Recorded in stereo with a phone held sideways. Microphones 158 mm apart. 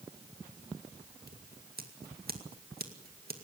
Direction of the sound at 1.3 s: 80° right.